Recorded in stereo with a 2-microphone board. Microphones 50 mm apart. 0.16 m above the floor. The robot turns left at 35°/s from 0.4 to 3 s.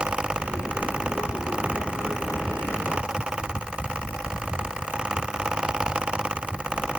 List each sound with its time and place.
Only background noise.